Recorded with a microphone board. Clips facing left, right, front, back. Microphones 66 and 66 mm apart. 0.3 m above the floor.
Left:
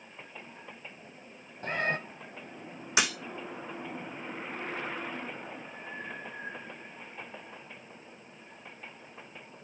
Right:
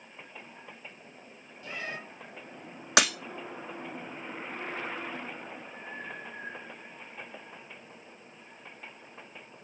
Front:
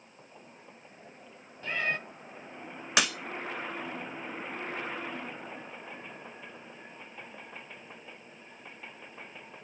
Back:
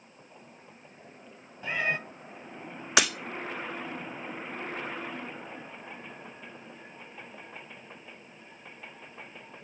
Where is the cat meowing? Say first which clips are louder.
Left 8 dB, back 2 dB; 105° left, 0.8 m.